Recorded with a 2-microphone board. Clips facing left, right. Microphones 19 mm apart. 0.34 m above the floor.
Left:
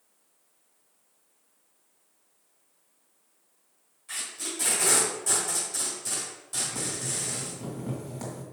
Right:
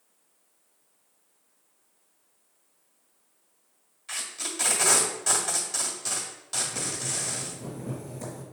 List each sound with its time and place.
4.1 s tape being pulled: 40° right (ahead or behind), 1.4 m
6.6 s boiling: 50° left (ahead or behind), 2 m